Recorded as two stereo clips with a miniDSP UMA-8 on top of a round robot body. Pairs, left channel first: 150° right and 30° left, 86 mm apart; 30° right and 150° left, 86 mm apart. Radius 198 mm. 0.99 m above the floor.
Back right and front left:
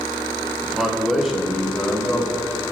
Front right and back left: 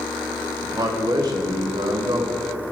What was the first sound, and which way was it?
A man speaking, 115° left.